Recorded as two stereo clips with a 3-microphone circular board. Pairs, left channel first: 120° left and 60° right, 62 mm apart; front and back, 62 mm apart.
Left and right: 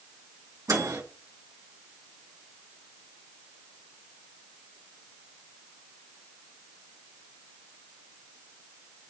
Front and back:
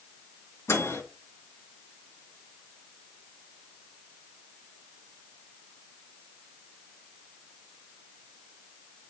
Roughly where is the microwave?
Ahead right.